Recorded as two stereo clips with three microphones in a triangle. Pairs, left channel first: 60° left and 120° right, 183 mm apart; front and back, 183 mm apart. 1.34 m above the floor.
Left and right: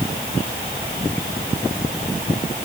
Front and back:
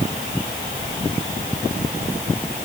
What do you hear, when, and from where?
Only background noise.